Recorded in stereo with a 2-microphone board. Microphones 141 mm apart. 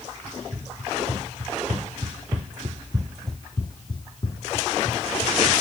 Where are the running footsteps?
75° right (ahead or behind), 4.5 m; by 5.4 s 55° left (ahead or behind), 3.5 m.